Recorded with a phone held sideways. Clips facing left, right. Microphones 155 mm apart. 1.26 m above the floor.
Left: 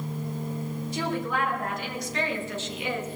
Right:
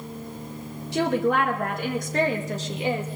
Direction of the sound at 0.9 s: 80° right.